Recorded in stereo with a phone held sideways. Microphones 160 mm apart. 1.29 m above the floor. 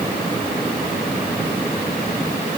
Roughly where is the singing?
I don't hear singing.